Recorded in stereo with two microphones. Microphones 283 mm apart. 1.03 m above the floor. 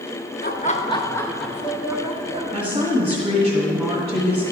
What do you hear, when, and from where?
0.4 s laughter: 35° left (ahead or behind), 0.8 m; by 2.4 s 15° right (ahead or behind), 1.3 m
2.5 s a woman speaking: 15° right (ahead or behind), 1.8 m